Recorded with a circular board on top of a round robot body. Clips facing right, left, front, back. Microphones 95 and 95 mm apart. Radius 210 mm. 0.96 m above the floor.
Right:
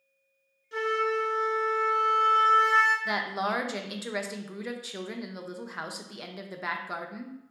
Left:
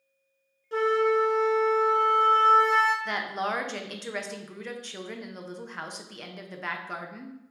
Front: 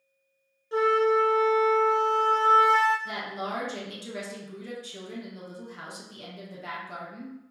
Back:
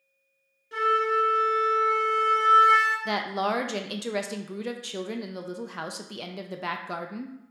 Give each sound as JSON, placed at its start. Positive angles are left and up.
{"t": 0.7, "sound": "a flute", "azimuth_deg": 55, "distance_m": 1.1}
{"t": 3.0, "sound": "a woman speaking", "azimuth_deg": -175, "distance_m": 0.6}